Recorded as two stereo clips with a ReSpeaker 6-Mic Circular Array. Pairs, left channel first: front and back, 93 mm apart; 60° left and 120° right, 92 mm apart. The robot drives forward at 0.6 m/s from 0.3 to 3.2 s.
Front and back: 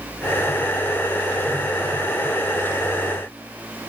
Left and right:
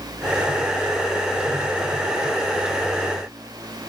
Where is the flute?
No flute in this recording.